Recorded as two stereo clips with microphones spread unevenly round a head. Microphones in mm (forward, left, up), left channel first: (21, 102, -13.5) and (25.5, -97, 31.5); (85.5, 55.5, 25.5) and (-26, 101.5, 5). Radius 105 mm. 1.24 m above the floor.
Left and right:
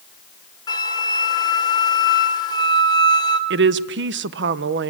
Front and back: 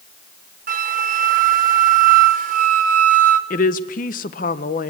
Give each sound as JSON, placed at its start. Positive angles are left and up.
{"t": 0.7, "sound": "a flute", "azimuth_deg": 165, "distance_m": 1.1}
{"t": 3.5, "sound": "a woman speaking", "azimuth_deg": -50, "distance_m": 0.8}